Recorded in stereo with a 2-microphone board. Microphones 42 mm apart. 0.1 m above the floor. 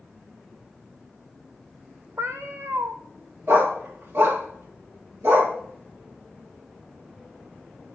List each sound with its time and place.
2.2 s a cat meowing: 70° right (ahead or behind), 1.9 m
3.5 s a dog barking: 65° right (ahead or behind), 6.5 m